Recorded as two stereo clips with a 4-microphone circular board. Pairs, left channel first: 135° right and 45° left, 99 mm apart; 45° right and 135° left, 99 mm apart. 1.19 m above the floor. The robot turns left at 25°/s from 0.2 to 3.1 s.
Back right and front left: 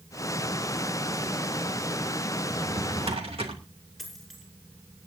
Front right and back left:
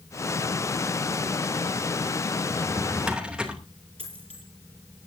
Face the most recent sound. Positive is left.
turn(degrees=135)